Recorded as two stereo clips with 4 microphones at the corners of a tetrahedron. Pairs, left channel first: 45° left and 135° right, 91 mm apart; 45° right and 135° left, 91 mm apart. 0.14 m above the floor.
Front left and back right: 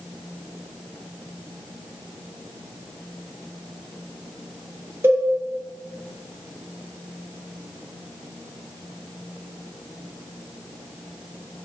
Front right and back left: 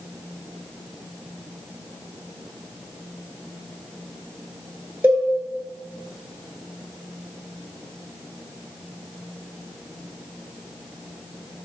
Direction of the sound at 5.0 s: 170° right.